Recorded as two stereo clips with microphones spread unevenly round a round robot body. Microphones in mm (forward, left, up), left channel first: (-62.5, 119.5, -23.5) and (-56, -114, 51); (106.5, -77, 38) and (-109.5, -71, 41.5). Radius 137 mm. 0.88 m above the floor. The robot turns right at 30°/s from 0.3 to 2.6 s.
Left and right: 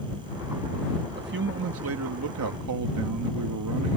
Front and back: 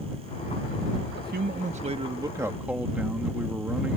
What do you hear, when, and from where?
1.2 s a man speaking: 140° right; by 4.0 s 100° right